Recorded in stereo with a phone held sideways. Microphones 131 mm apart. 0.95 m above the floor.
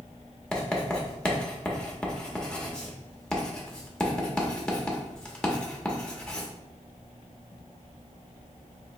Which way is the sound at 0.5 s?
10° left (ahead or behind).